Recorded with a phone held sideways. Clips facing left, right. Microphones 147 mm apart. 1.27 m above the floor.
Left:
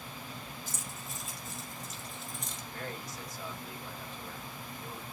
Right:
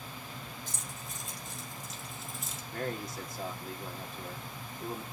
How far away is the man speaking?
About 2.5 m.